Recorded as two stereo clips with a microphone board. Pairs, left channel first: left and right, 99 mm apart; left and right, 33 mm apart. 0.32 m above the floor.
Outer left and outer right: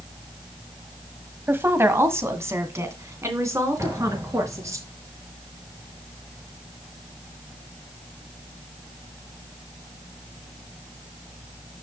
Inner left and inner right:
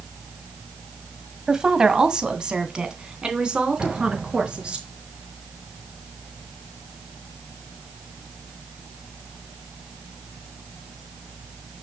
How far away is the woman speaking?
About 1.4 m.